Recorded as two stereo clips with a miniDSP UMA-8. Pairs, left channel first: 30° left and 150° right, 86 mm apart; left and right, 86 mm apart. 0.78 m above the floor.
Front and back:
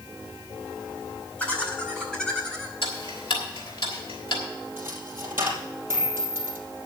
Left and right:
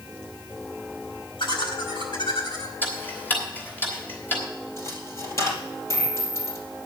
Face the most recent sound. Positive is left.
turn(degrees=145)